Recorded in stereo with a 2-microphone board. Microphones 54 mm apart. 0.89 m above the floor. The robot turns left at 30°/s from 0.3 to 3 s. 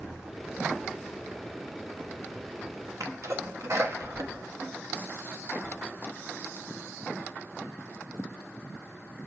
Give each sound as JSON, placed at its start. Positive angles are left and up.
{"t": 3.0, "sound": "a sneeze", "side_deg": -65, "distance_m": 1.0}